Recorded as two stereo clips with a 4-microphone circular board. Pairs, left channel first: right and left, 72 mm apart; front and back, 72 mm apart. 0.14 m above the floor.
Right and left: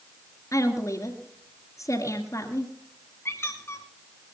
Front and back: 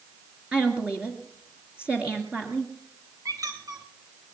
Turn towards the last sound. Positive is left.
turn(degrees=-145)